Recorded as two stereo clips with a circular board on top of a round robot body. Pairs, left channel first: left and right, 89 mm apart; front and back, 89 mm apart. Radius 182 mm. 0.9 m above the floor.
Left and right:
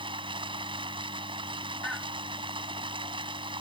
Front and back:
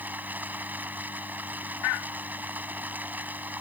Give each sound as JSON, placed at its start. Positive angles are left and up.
{"t": 0.0, "sound": "running water", "azimuth_deg": -110}